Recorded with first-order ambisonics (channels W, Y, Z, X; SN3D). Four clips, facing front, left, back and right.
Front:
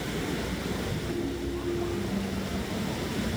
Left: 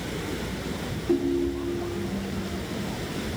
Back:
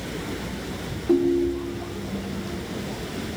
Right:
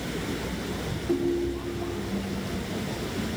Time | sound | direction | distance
1.1 | a ringtone | 170° left | 1.8 m